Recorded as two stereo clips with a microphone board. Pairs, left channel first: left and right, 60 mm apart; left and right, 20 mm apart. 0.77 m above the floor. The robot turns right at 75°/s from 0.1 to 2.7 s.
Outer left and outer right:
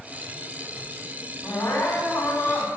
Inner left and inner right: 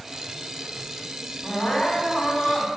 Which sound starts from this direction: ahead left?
Crying, at 1.4 s.